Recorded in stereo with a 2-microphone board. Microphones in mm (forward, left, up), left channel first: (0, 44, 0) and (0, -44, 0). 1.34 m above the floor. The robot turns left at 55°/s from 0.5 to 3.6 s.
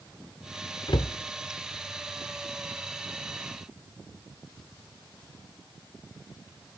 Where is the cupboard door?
55° left (ahead or behind), 0.6 m; by 1.2 s 60° left (ahead or behind), 0.6 m.